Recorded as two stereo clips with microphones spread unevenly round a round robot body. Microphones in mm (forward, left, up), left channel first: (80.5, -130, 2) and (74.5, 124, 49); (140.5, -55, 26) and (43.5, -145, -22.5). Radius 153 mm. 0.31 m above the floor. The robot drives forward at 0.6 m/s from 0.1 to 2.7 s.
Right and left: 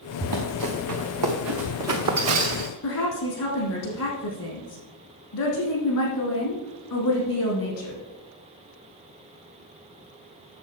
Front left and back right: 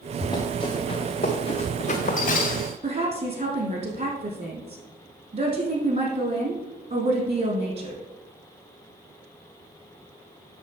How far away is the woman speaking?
About 4 m.